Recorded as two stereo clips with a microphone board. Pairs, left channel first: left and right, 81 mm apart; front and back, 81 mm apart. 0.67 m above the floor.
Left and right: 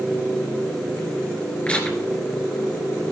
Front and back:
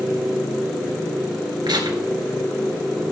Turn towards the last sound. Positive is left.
turn(degrees=165)